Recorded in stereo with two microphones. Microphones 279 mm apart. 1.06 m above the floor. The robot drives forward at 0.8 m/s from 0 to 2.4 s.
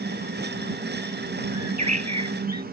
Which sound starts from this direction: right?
A bird, at 1.5 s.